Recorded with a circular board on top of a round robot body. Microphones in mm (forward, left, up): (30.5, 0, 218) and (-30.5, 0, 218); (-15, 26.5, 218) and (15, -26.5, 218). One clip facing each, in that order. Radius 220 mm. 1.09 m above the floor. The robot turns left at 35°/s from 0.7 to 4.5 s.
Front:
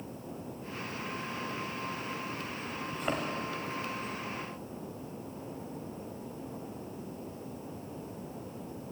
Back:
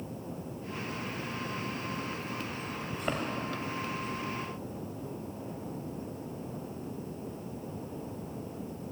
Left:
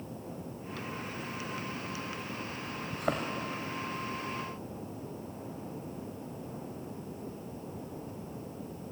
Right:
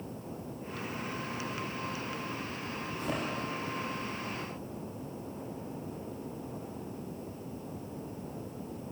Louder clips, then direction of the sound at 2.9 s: Even, left 3 dB; 95° left.